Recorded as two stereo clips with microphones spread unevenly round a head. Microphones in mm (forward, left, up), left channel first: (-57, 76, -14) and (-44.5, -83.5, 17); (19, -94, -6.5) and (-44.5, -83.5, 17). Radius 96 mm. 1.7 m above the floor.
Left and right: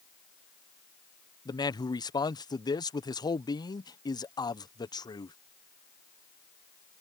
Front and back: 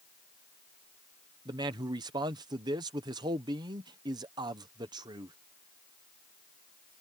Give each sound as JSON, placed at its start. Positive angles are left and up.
{"t": 1.4, "sound": "a man speaking", "azimuth_deg": 160}